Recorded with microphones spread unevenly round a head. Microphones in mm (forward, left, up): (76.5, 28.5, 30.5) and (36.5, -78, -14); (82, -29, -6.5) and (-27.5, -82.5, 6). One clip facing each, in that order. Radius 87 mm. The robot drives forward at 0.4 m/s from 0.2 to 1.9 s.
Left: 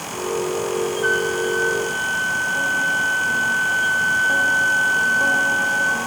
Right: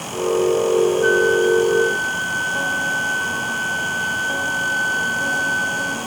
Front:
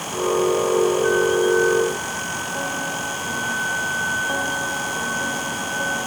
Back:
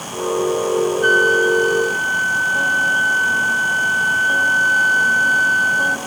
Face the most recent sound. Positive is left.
turn(degrees=-165)